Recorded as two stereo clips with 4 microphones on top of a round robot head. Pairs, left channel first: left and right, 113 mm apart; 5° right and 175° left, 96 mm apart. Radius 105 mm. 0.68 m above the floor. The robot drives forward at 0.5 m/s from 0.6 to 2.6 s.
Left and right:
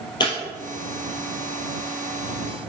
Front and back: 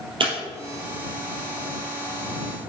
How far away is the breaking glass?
About 2.5 m.